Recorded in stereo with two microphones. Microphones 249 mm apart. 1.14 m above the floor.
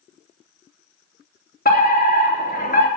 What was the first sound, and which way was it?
A fire alarm, 35° left (ahead or behind).